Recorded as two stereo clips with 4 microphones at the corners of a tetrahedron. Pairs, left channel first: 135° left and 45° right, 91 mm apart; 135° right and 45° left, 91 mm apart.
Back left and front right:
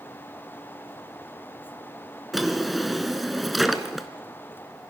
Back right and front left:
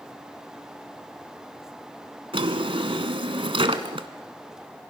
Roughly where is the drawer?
Ahead left.